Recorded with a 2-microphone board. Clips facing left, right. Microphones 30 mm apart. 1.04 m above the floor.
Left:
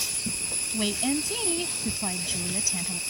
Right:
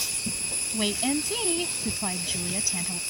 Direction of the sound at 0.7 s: 15° right (ahead or behind).